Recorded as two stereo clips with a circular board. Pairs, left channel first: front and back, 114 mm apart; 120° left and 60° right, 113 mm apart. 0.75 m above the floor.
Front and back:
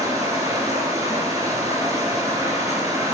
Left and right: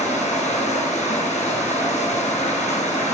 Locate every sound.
0.0 s running water: 120° left, 3 m